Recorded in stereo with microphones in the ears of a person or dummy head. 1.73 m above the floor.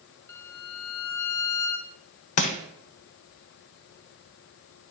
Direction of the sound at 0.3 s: 10° left (ahead or behind).